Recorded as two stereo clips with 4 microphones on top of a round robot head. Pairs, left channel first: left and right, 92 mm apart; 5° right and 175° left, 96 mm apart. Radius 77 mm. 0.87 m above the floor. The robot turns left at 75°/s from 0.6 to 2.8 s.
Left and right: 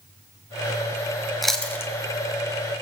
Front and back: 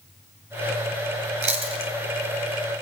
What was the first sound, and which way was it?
Chewing, straight behind.